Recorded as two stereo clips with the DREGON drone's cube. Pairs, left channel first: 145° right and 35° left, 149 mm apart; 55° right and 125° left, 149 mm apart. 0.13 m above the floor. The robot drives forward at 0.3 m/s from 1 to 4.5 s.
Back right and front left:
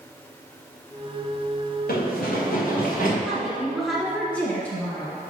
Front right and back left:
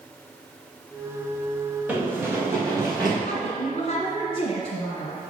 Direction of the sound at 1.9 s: 155° right.